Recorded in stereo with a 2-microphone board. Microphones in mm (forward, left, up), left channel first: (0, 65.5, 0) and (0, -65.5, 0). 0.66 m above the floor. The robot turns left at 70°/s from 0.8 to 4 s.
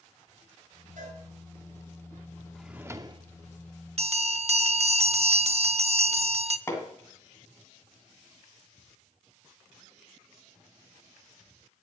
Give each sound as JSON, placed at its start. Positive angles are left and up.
{"t": 1.0, "sound": "a cowbell", "side_deg": -75, "distance_m": 6.0}
{"t": 2.5, "sound": "a drawer", "azimuth_deg": 5, "distance_m": 0.7}
{"t": 4.0, "sound": "a bell", "side_deg": -50, "distance_m": 0.6}
{"t": 6.7, "sound": "hammering", "side_deg": 20, "distance_m": 2.5}